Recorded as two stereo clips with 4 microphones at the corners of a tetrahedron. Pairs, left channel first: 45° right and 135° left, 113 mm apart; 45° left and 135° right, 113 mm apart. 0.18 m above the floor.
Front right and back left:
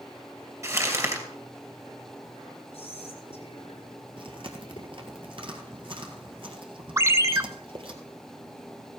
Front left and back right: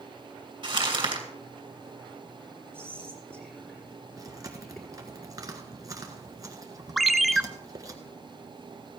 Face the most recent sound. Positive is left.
turn(degrees=135)